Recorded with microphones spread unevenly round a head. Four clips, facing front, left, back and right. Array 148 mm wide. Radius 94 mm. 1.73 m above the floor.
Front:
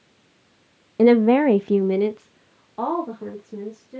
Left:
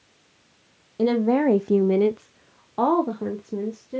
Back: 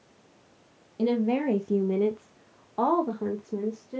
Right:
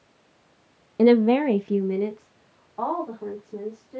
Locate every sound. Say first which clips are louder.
1.0 s a woman speaking: right 3 dB, front 11 dB; 35° right, 0.5 m; by 4.0 s 95° left, 1.4 m